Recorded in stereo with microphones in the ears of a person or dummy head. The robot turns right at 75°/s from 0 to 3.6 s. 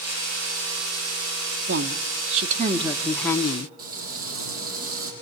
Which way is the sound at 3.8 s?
45° right (ahead or behind).